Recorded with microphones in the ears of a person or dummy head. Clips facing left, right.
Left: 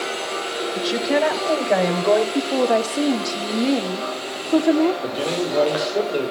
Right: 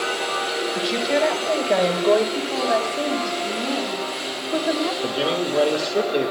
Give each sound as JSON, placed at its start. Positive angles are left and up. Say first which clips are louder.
{"t": 0.8, "sound": "a woman speaking", "louder": "left 2 dB", "side_deg": 5, "distance_m": 5.0}
{"t": 2.4, "sound": "a woman speaking", "louder": "left 4 dB", "side_deg": 50, "distance_m": 2.0}
{"t": 5.0, "sound": "a man speaking", "louder": "even", "side_deg": -15, "distance_m": 2.0}